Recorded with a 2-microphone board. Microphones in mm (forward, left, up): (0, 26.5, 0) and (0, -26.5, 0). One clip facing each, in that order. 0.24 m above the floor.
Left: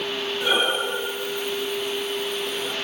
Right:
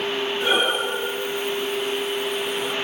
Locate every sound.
0.4 s breathing: 5° right (ahead or behind), 0.9 m